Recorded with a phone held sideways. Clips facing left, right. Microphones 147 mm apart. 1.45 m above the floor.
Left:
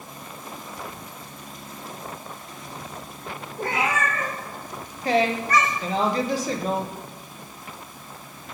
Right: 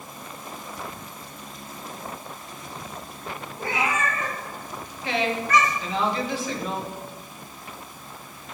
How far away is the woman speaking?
About 1.2 m.